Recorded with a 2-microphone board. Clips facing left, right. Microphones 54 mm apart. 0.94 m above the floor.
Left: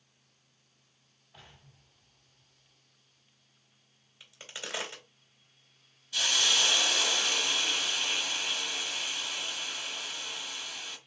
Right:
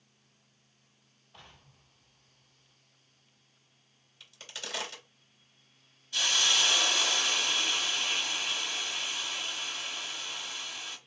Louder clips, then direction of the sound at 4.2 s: Left 1 dB; 20° left (ahead or behind).